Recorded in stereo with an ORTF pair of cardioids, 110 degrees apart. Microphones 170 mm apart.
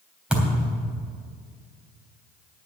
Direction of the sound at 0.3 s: 5° right.